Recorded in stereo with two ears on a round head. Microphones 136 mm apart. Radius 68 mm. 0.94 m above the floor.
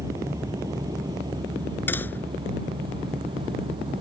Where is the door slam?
15° left (ahead or behind).